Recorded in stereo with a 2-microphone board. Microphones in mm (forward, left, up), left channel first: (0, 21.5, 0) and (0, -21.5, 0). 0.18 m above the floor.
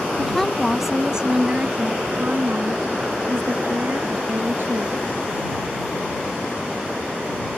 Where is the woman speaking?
15° left (ahead or behind); by 5.1 s 65° right (ahead or behind).